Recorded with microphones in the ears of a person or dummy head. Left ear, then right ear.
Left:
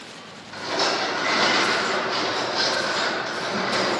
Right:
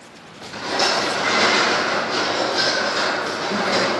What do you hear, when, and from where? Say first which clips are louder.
0.5 s a rattle: right 3 dB; 10° left (ahead or behind), 1.2 m